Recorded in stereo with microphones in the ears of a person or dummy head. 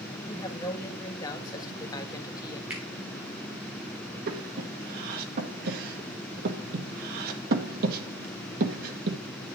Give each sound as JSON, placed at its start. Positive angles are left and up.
{"t": 0.3, "sound": "a woman speaking", "side_deg": 20, "distance_m": 1.5}
{"t": 2.7, "sound": "a finger snap", "side_deg": -5, "distance_m": 3.0}
{"t": 4.3, "sound": "breathing", "side_deg": -50, "distance_m": 1.7}